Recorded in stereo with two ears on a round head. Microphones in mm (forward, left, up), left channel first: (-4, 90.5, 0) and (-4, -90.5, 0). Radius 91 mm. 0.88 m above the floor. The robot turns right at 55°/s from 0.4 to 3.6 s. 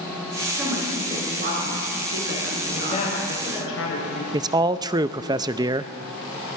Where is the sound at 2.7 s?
20° left, 4 m; by 4.2 s 70° left, 4 m.